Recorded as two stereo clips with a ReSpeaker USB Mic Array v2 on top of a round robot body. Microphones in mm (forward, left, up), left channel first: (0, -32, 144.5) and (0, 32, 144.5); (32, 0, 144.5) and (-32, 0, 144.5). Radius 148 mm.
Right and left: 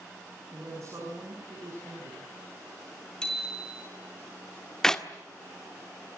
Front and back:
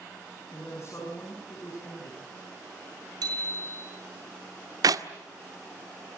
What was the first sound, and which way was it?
A woman speaking, 45° left.